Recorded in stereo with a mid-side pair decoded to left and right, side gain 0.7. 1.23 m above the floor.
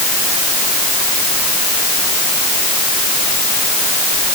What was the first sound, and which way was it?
Only background noise.